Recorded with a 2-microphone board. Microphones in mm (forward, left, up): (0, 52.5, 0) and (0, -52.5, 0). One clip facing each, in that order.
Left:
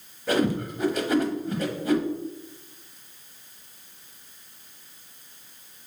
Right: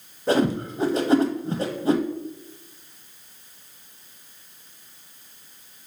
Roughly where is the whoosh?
Right.